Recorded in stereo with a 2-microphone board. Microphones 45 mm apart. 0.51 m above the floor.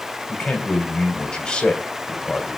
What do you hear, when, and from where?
0.3 s a man speaking: 30° left (ahead or behind), 2.5 m